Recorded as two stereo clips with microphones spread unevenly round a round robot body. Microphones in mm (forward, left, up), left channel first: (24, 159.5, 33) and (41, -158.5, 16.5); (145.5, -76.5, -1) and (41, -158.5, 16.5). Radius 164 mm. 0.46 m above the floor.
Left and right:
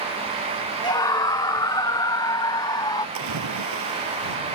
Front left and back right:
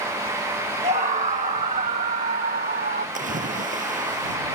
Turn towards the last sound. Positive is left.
turn(degrees=-130)